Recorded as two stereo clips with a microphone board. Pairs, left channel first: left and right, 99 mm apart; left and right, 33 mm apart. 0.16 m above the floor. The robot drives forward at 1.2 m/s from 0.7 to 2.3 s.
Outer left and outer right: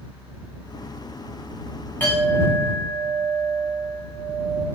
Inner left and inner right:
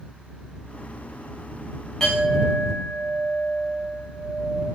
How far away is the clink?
About 8.5 m.